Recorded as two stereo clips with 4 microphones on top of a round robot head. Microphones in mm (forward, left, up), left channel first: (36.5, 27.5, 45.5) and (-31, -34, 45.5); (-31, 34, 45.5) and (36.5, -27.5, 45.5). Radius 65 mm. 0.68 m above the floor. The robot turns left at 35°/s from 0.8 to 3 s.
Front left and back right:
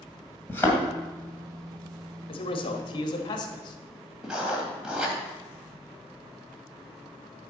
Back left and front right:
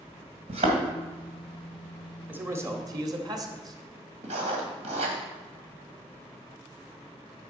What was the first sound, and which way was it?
A thud, 30° right.